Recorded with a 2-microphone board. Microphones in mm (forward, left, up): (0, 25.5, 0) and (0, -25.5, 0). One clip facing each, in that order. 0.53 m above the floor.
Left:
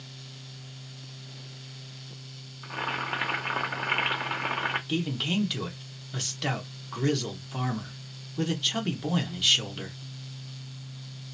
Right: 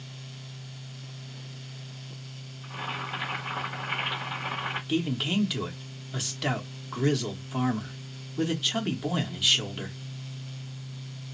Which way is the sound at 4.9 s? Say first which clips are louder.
Right 1 dB; 5° right (ahead or behind).